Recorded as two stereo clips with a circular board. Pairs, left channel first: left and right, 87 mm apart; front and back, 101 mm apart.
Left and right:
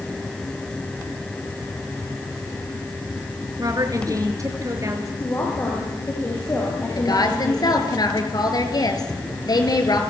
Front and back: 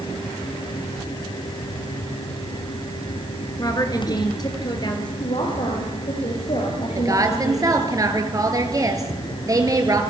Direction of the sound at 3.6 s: 50° right.